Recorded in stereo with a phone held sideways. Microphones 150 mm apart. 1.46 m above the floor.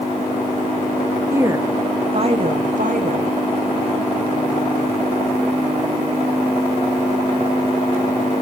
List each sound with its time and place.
1.3 s a woman speaking: 15° right (ahead or behind), 0.9 m; by 3.4 s 70° right (ahead or behind), 1.2 m